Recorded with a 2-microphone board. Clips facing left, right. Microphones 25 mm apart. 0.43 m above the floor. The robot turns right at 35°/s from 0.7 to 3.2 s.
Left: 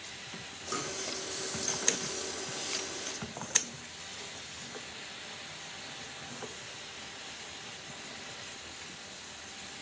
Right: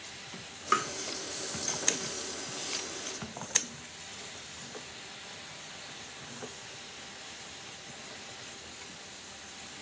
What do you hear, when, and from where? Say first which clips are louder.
0.7 s tapping: right 9 dB; 60° right (ahead or behind), 0.7 m; by 0.9 s 65° right (ahead or behind), 0.7 m